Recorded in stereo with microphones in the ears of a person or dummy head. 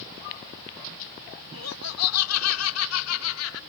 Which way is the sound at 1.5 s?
90° left.